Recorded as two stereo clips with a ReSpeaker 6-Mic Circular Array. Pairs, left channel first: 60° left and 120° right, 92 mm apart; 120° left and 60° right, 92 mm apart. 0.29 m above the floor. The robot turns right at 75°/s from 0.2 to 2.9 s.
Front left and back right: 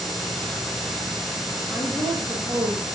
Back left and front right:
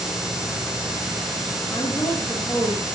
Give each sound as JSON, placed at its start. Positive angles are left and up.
{"t": 1.7, "sound": "a woman speaking", "azimuth_deg": 155, "distance_m": 5.5}